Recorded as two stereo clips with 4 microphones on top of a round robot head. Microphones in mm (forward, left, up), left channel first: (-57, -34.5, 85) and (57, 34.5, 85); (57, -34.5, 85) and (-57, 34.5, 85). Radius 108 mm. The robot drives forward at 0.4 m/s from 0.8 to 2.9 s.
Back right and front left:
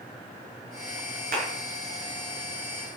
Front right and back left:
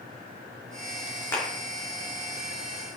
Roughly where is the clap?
Ahead left.